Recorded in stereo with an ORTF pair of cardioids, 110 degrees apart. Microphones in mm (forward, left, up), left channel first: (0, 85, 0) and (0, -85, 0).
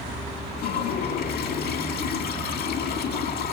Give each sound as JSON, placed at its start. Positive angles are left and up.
{"t": 0.6, "sound": "a toilet flushing", "azimuth_deg": 70, "distance_m": 5.0}